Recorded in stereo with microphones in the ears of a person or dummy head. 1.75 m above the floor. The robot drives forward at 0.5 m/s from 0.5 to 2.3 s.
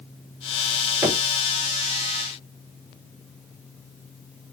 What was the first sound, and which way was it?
Knocking, 10° right (ahead or behind).